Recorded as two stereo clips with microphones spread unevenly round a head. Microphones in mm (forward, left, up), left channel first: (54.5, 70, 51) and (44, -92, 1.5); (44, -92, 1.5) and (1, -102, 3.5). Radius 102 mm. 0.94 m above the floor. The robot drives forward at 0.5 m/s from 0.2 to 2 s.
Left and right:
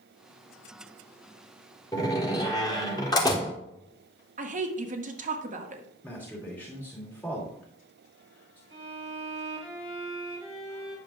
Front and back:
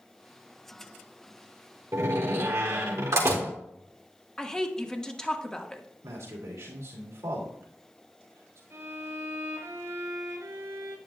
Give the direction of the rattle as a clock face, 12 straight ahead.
I don't hear a rattle.